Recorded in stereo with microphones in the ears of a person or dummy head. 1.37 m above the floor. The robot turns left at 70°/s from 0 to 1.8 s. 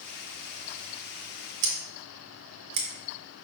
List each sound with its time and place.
1.6 s scissors: 60° right (ahead or behind), 0.9 m